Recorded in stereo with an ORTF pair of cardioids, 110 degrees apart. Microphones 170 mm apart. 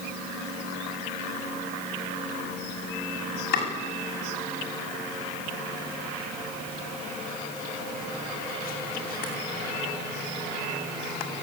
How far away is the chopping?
About 8 m.